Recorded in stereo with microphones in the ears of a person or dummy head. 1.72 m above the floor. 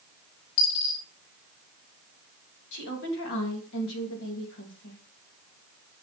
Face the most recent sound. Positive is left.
turn(degrees=75)  # may be behind; listen again after turning